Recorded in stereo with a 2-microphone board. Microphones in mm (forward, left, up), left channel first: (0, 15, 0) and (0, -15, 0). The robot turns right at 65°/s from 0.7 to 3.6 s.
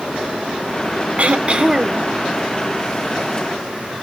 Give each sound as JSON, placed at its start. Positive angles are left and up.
{"t": 1.2, "sound": "throat clearing", "azimuth_deg": -70, "distance_m": 0.6}